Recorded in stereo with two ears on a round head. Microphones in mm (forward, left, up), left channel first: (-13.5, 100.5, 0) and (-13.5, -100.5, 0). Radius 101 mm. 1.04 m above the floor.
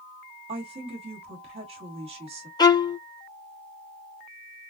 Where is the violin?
15° left (ahead or behind), 0.5 m.